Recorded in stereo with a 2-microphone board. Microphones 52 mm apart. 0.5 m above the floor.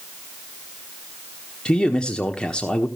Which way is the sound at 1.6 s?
20° left (ahead or behind).